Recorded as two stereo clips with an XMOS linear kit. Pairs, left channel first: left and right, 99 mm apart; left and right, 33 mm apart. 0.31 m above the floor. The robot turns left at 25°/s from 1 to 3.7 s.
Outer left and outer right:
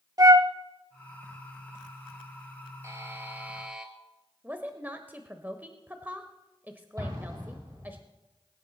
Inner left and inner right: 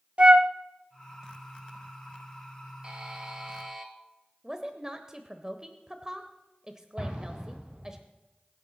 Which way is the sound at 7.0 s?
35° right (ahead or behind).